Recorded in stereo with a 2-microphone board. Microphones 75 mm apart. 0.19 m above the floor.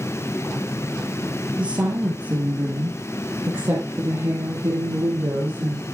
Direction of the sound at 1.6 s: 15° right (ahead or behind).